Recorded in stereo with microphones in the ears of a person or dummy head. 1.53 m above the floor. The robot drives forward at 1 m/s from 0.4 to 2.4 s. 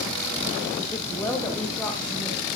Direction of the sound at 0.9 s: 15° left (ahead or behind).